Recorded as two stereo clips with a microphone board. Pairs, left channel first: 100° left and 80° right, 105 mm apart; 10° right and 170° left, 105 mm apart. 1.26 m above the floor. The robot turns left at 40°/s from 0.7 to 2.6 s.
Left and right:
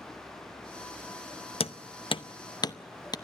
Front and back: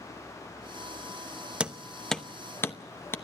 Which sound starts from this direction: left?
Hammering, at 1.6 s.